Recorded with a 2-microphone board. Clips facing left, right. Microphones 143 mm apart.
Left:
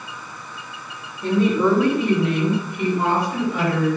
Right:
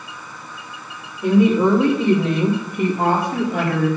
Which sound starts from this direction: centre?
A woman speaking, at 1.2 s.